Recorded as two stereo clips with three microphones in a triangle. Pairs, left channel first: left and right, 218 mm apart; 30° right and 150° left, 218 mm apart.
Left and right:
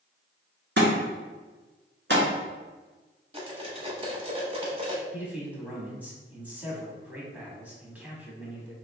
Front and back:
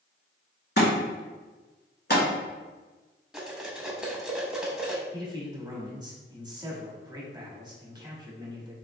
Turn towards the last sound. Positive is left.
turn(degrees=-165)